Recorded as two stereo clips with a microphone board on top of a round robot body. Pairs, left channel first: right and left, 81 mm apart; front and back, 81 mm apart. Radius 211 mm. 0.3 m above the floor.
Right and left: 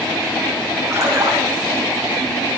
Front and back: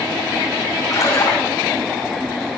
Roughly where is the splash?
Ahead left.